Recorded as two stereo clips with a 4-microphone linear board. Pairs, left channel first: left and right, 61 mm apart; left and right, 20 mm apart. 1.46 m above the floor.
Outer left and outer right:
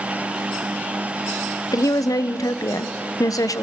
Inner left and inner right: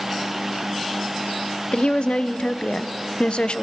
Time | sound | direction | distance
1.7 | a woman speaking | 65° left (ahead or behind) | 0.7 m